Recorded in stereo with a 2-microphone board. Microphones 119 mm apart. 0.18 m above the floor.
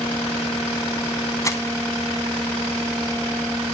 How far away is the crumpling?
About 0.6 m.